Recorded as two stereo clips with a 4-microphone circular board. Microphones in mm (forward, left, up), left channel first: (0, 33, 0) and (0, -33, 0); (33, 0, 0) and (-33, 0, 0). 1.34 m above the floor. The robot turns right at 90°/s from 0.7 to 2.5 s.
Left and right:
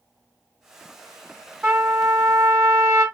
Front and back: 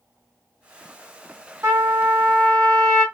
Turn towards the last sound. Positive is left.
turn(degrees=-90)